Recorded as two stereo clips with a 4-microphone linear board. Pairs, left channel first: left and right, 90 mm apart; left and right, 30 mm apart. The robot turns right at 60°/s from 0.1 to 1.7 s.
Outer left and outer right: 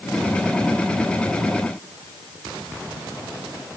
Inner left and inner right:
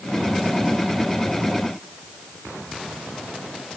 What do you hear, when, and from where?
Only background noise.